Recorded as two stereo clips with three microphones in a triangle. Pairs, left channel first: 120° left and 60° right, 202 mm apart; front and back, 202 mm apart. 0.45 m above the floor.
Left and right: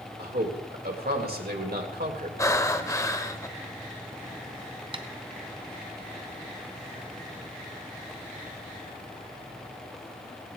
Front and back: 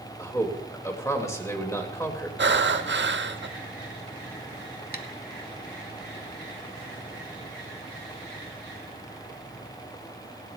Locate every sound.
0.2 s a man speaking: 75° right, 2 m
2.4 s breathing: 170° right, 0.8 m
4.9 s tapping: straight ahead, 0.9 m